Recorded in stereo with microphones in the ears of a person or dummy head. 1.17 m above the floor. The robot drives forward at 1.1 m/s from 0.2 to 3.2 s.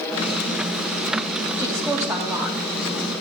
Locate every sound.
1.6 s a woman speaking: 20° right (ahead or behind), 1.5 m; by 3.1 s 10° right (ahead or behind), 3 m